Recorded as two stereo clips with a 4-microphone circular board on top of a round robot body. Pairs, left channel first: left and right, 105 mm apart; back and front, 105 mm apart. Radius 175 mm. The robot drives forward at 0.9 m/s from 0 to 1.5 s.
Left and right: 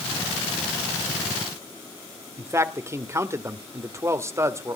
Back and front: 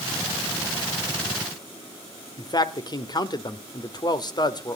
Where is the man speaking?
145° right, 1.6 m.